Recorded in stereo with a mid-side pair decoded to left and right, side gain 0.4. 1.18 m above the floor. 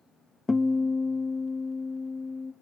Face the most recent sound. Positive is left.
turn(degrees=20)